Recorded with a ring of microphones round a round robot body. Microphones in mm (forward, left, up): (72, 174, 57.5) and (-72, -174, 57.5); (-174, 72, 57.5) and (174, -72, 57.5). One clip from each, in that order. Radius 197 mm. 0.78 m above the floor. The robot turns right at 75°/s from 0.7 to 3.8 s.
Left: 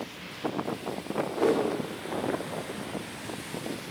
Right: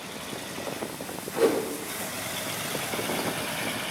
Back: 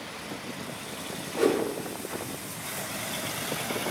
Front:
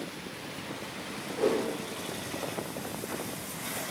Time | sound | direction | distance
1.4 | a whoosh | 160° right | 2.5 m